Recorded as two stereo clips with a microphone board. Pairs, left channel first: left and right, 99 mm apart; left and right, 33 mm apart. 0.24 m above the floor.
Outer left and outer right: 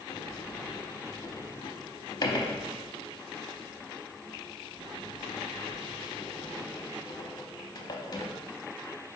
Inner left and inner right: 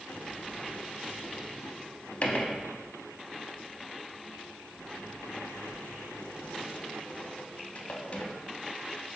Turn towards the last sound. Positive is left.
turn(degrees=45)  # may be behind; listen again after turning